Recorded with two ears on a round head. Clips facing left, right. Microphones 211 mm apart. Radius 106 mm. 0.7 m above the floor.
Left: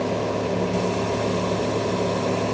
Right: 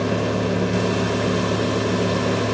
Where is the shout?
No shout in this recording.